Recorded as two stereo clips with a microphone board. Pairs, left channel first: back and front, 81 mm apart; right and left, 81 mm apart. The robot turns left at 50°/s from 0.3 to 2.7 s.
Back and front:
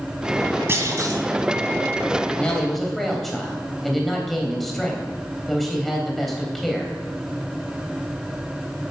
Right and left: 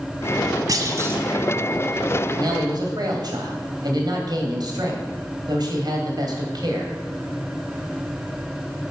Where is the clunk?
55° left, 1.6 m; by 1.2 s 30° left, 1.6 m.